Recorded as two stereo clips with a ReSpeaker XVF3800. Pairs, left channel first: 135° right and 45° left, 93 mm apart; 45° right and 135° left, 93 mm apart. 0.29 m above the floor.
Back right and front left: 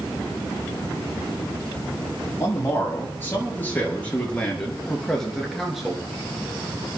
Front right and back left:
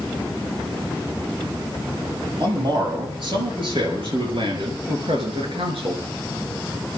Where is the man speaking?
165° left, 7 m; by 6.0 s 130° left, 5 m.